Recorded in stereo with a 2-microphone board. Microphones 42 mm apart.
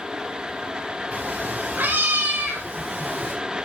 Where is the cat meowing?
45° right (ahead or behind), 4.5 m; by 3.4 s 60° right (ahead or behind), 3.5 m.